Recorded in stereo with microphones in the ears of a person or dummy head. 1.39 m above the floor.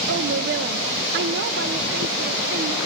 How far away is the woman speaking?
About 1.0 m.